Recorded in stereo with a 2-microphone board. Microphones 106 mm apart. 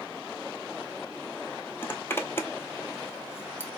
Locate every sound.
1.8 s a zipper: 20° left (ahead or behind), 0.8 m